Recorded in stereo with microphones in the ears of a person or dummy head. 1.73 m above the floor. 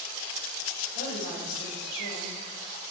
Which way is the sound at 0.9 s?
70° left (ahead or behind).